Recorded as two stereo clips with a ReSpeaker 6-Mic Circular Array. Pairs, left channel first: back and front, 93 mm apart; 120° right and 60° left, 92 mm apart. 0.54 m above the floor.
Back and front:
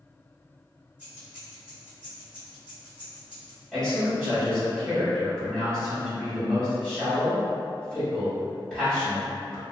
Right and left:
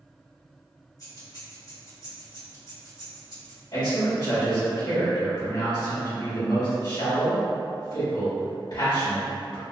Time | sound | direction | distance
1.0 | keys jangling | 80° right | 2.0 m
3.7 | a man speaking | 90° right | 2.0 m